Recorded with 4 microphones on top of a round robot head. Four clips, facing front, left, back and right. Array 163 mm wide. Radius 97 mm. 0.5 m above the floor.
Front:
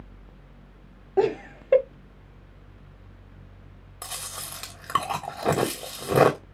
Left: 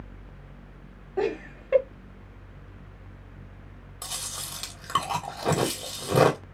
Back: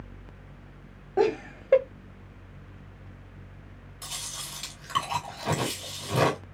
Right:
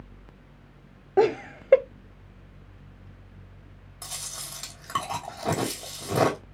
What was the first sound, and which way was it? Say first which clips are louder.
Laughter: right 6 dB, front 1 dB; 80° right.